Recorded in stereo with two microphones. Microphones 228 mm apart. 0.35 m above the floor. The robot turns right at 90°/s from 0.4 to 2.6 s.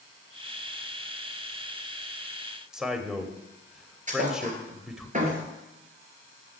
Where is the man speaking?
5° right (ahead or behind), 1.4 m.